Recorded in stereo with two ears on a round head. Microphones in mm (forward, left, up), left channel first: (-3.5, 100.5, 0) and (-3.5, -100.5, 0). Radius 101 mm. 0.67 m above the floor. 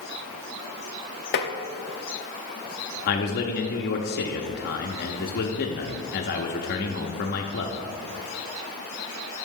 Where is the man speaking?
45° left (ahead or behind), 0.7 m.